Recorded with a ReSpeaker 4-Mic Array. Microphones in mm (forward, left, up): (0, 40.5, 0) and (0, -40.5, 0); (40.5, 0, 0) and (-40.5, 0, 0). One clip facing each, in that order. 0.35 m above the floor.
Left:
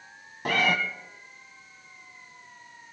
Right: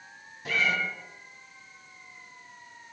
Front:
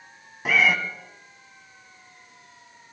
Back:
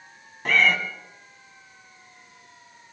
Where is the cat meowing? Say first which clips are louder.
Left 3 dB, even; 85° left, 1.3 m.